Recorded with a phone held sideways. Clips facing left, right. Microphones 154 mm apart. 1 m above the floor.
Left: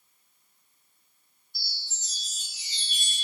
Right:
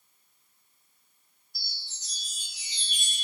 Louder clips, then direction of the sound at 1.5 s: Left 2 dB; centre (ahead or behind).